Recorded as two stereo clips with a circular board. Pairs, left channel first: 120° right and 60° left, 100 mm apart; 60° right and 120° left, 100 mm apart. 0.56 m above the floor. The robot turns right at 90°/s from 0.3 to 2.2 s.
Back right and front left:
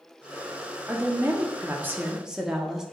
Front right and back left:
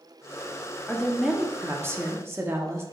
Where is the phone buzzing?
No phone buzzing in this recording.